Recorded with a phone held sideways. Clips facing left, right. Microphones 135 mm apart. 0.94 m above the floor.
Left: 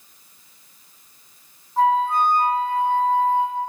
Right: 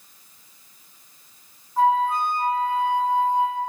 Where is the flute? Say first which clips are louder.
Left 1 dB; 20° left (ahead or behind), 1.6 m.